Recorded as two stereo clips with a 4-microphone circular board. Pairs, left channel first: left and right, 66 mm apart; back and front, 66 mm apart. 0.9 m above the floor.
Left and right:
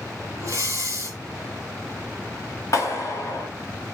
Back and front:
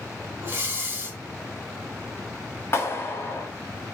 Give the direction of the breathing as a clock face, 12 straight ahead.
2 o'clock.